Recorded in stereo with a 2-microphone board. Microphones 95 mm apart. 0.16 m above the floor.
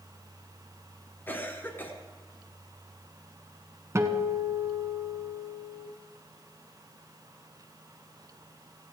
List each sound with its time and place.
1.3 s a cough: 20° left (ahead or behind), 1.8 m
4.0 s a guitar: 30° right (ahead or behind), 1.3 m